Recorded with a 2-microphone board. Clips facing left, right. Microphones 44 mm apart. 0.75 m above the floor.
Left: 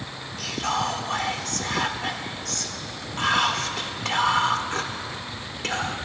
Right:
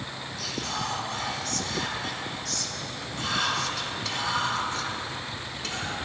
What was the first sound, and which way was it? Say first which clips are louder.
Whispering: left 7 dB; 50° left (ahead or behind).